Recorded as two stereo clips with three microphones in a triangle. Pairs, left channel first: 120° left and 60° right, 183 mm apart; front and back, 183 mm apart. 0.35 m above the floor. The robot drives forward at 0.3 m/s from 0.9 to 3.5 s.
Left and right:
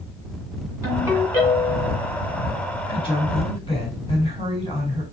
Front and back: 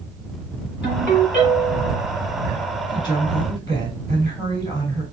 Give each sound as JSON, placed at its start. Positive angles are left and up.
{"t": 0.8, "sound": "a ringtone", "azimuth_deg": 15, "distance_m": 2.0}
{"t": 2.9, "sound": "a woman speaking", "azimuth_deg": 60, "distance_m": 2.5}